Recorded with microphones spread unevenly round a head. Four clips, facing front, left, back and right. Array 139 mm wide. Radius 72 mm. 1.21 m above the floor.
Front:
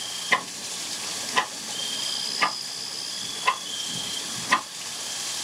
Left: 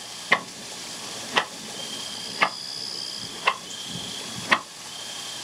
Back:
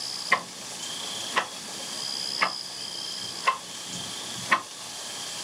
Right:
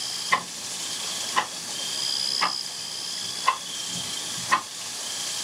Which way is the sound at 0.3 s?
90° left.